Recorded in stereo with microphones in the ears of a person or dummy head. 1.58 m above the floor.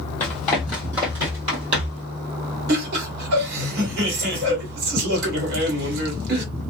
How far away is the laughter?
About 1.8 m.